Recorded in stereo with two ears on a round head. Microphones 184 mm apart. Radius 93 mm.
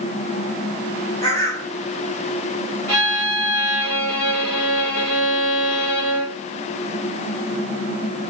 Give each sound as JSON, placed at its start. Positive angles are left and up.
{"t": 1.2, "sound": "a bird", "side_deg": 20, "distance_m": 2.0}
{"t": 2.9, "sound": "a violin", "side_deg": 10, "distance_m": 2.0}